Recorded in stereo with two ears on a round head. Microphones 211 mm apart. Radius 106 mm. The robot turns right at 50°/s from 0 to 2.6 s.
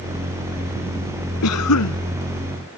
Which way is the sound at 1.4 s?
70° left (ahead or behind).